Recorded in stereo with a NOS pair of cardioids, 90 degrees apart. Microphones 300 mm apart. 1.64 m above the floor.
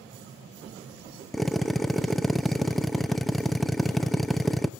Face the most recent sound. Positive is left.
turn(degrees=0)